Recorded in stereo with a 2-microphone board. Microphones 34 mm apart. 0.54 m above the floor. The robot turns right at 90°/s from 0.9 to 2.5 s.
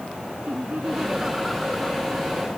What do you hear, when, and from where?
0.5 s laughter: 45° right; by 2.1 s 60° left